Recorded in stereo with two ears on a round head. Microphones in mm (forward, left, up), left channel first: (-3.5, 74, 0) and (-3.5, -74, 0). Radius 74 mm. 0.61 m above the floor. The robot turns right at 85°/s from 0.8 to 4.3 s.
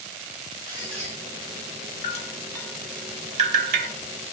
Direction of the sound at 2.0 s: 45° left (ahead or behind).